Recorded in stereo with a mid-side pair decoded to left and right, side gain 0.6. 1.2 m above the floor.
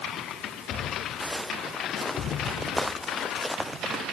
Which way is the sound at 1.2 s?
10° left.